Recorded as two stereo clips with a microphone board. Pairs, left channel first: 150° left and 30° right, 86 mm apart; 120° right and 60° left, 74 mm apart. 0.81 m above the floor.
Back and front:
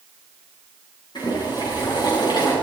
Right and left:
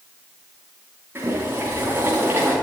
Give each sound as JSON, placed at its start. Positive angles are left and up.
{"t": 1.1, "sound": "boiling", "azimuth_deg": 120, "distance_m": 6.5}